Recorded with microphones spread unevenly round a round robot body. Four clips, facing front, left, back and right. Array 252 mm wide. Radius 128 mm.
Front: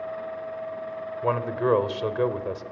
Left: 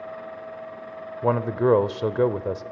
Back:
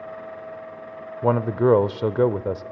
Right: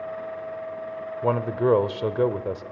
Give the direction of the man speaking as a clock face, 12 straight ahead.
6 o'clock.